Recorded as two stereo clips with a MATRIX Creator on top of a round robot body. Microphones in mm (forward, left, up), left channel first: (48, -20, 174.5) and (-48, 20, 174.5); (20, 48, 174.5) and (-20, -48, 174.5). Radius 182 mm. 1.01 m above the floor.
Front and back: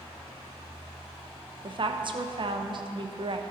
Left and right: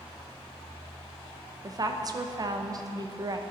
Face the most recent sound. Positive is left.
turn(degrees=-165)